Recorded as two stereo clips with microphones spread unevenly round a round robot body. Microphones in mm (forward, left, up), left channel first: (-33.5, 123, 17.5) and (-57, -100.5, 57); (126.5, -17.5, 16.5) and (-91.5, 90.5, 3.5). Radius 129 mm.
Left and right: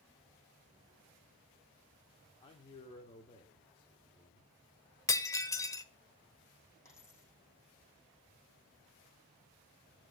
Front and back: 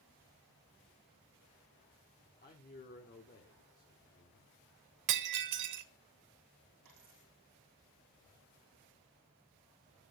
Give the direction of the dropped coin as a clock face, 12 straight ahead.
7 o'clock.